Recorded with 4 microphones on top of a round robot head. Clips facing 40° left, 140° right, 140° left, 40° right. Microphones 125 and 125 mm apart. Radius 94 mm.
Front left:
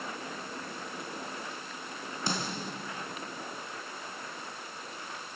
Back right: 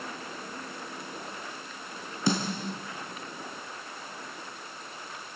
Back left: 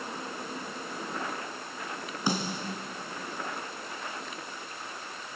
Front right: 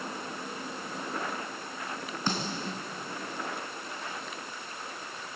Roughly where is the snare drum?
Behind right.